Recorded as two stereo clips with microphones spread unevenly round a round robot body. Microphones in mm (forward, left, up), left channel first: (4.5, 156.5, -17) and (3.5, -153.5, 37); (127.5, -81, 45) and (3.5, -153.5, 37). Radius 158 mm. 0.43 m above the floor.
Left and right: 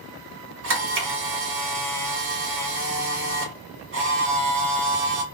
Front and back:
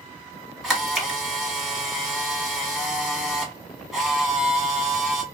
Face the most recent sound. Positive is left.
turn(degrees=-65)